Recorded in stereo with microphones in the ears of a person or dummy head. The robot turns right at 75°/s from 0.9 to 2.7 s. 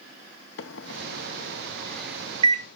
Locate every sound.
0.6 s a microwave: 75° left (ahead or behind), 1.0 m; by 2.7 s 45° right (ahead or behind), 1.0 m